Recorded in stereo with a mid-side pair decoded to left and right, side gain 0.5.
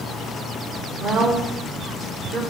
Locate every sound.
1.0 s a woman speaking: 65° right, 2.5 m